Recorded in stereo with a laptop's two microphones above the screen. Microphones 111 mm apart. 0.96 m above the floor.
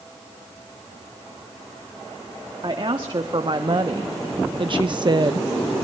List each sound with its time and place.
2.6 s a woman speaking: 45° right (ahead or behind), 1.9 m; by 5.5 s 35° right (ahead or behind), 0.5 m